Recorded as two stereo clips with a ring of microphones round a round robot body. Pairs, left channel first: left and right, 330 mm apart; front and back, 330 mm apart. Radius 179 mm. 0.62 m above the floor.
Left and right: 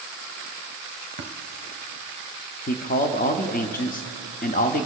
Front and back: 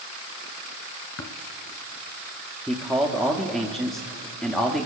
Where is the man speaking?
90° left, 0.7 m.